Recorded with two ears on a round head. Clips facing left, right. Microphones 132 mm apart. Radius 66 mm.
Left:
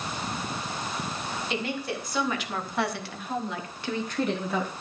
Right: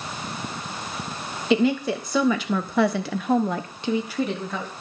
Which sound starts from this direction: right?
A woman speaking, at 1.5 s.